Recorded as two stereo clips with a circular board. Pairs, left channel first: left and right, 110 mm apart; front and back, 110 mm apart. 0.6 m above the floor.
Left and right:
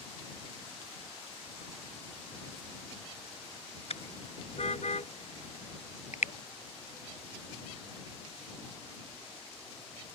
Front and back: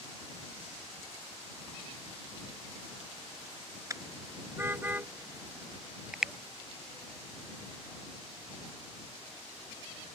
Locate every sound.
3.9 s a car horn: 115° left; by 6.3 s 95° left